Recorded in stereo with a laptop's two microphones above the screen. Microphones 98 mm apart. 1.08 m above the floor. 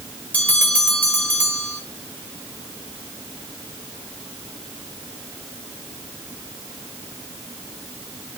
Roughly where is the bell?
Centre.